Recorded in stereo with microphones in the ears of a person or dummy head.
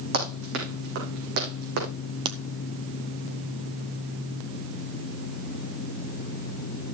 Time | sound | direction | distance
0.1 | running footsteps | 60° right (ahead or behind) | 3.5 m
2.2 | a crack | 25° right (ahead or behind) | 0.7 m